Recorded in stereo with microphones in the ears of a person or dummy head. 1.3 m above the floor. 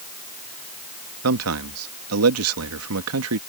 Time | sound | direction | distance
1.2 | a man speaking | 85° right | ?